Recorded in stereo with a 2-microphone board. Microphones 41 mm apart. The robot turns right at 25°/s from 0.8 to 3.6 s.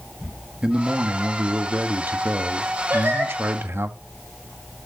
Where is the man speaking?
155° right, 1.3 m; by 3.9 s 85° right, 1.3 m.